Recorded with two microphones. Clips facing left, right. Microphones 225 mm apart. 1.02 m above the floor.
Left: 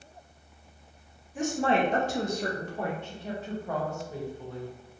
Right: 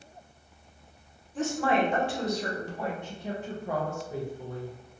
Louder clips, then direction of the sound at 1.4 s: Even; 10° left (ahead or behind).